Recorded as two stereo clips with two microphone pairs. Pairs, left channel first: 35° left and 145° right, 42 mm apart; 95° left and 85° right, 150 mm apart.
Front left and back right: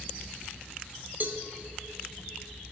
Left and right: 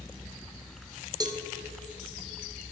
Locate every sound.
1.2 s a cowbell: 130° right, 0.5 m